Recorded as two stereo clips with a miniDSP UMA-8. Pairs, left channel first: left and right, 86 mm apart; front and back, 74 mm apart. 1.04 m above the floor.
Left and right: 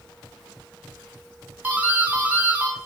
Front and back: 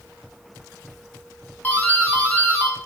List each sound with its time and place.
1.6 s a doorbell: 40° right, 0.8 m